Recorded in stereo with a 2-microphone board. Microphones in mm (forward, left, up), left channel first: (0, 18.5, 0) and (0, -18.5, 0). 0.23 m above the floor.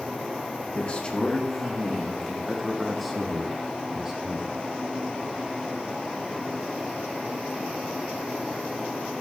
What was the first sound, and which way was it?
A man speaking, 35° left (ahead or behind).